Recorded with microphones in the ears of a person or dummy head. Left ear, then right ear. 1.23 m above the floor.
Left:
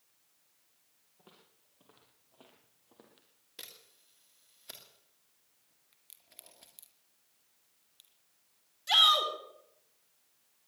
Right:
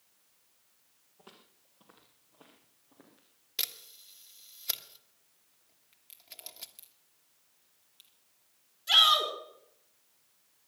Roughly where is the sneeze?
No sneeze in this recording.